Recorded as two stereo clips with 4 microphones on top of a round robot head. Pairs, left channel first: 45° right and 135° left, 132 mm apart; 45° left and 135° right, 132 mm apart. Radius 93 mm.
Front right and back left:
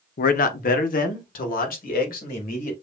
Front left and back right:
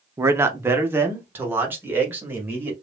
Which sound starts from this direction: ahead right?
A man speaking, at 0.2 s.